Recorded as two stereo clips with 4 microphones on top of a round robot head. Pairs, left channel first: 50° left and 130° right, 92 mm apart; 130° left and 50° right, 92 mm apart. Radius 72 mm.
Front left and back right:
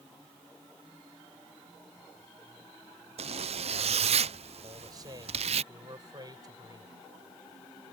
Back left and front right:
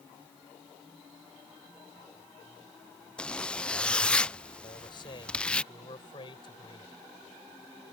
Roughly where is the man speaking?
Behind.